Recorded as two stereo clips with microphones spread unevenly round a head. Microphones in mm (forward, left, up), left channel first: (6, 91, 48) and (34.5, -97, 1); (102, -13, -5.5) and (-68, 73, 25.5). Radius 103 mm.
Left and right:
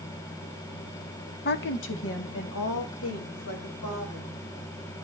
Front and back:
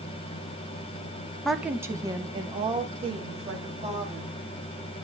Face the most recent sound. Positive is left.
turn(degrees=95)